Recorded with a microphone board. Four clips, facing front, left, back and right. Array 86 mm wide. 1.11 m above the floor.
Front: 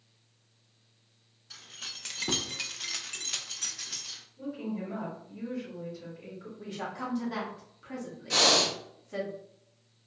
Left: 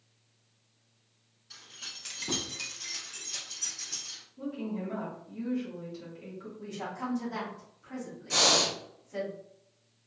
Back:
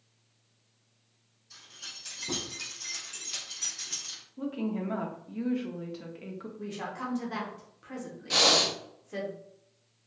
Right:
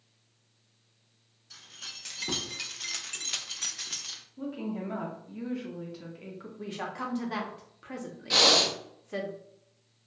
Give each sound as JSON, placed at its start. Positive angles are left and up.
{"t": 1.5, "sound": "keys jangling", "azimuth_deg": 10, "distance_m": 0.9}
{"t": 4.4, "sound": "a woman speaking", "azimuth_deg": -155, "distance_m": 0.7}
{"t": 6.6, "sound": "a woman speaking", "azimuth_deg": -100, "distance_m": 0.7}
{"t": 8.3, "sound": "breathing", "azimuth_deg": -105, "distance_m": 0.6}